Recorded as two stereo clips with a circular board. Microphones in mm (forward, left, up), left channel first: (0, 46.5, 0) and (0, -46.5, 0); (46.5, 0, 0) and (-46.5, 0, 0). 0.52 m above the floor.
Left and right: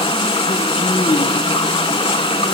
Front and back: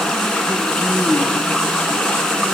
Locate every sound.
0.0 s running water: 85° left, 1.5 m